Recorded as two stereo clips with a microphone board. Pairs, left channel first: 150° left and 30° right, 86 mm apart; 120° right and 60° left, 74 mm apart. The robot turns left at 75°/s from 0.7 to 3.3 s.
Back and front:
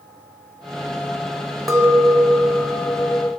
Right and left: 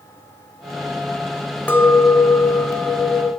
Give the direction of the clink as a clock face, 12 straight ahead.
2 o'clock.